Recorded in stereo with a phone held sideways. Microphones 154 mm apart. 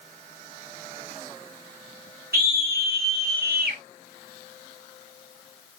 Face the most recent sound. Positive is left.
turn(degrees=-80)